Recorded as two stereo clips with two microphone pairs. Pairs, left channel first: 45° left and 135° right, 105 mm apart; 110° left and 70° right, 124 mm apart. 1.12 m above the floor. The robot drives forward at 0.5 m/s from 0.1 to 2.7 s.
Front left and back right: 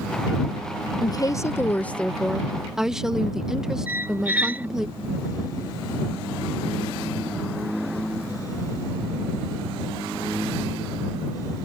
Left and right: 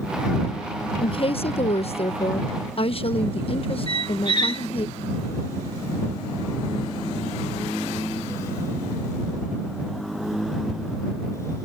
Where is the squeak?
155° left.